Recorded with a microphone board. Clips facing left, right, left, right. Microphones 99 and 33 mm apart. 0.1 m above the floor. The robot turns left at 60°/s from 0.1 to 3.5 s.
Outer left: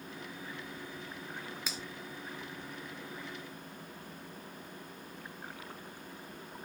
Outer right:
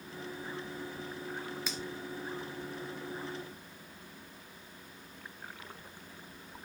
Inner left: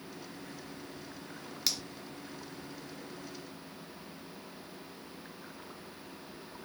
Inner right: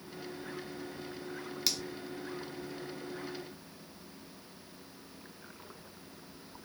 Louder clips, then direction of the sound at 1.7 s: Outer right 2 dB, even; centre (ahead or behind).